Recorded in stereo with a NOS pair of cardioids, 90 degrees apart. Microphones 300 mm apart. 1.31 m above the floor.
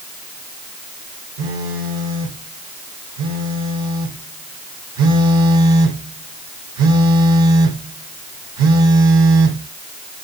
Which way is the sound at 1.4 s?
65° right.